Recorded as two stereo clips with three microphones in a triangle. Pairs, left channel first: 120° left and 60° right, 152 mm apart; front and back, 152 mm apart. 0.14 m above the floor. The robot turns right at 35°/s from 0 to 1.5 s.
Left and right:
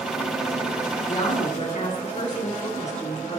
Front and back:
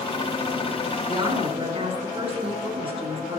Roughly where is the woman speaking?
Behind left.